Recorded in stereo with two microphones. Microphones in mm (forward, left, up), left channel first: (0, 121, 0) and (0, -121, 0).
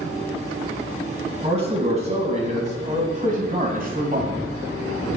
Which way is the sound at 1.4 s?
25° right (ahead or behind).